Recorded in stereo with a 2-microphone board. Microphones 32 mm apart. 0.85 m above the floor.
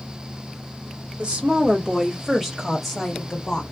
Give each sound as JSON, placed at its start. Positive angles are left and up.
{"t": 1.2, "sound": "a woman speaking", "side_deg": -40, "distance_m": 1.6}